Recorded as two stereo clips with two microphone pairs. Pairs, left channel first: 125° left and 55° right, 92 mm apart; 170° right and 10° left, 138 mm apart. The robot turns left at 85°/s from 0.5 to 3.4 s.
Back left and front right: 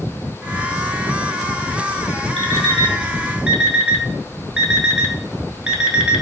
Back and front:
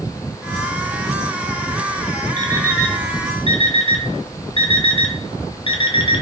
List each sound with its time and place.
2.4 s an alarm clock: 40° right, 0.8 m; by 6.2 s 130° right, 0.8 m